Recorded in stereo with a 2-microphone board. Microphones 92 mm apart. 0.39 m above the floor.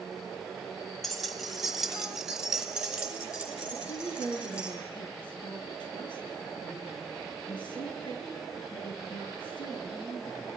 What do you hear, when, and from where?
1.0 s keys jangling: centre (ahead or behind), 1.8 m; by 4.7 s 10° right (ahead or behind), 5.5 m
3.7 s a woman speaking: 60° left (ahead or behind), 7.5 m